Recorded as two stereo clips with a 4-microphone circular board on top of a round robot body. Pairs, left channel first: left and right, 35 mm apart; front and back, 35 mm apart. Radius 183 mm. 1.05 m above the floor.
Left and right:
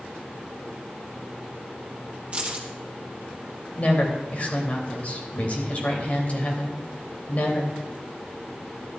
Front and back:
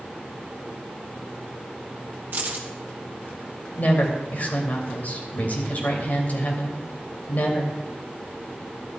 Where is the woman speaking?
45° left, 2.5 m.